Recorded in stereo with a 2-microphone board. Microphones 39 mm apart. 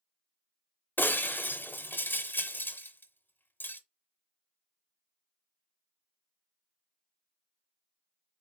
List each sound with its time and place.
1.0 s breaking glass: 60° left (ahead or behind), 0.8 m